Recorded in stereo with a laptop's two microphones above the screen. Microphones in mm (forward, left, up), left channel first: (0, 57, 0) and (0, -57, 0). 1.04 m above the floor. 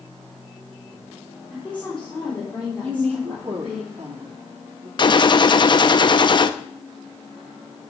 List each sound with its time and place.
1.5 s a woman speaking: 10° left (ahead or behind), 3.5 m
2.8 s a woman speaking: 45° right (ahead or behind), 2.5 m
5.0 s a gunshot: 40° left (ahead or behind), 0.5 m